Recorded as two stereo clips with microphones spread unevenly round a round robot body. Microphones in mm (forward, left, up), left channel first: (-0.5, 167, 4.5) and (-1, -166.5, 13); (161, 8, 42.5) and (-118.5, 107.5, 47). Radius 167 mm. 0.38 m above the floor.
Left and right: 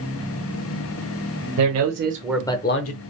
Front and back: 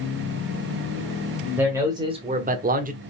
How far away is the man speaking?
About 1.4 m.